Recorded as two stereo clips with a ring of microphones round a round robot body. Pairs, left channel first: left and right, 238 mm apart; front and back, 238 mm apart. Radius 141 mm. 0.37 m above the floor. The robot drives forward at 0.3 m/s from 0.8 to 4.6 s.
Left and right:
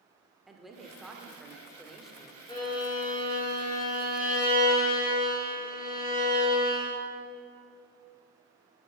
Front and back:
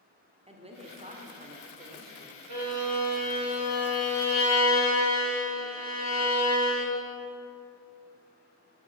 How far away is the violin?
About 4.5 m.